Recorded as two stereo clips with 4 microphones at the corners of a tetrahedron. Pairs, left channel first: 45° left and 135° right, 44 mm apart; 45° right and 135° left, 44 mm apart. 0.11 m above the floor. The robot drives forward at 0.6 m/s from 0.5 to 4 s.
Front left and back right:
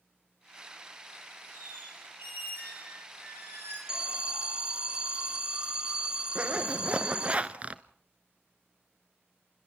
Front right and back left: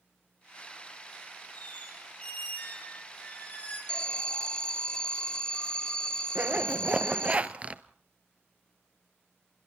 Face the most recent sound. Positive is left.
turn(degrees=180)